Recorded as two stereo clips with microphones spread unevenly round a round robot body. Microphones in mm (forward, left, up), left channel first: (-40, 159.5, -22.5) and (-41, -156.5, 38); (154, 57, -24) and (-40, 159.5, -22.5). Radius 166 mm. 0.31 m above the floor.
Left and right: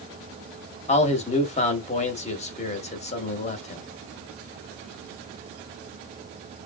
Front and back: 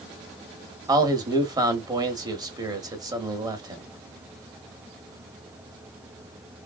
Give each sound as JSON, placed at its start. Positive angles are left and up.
{"t": 0.9, "sound": "a man speaking", "azimuth_deg": 95, "distance_m": 1.1}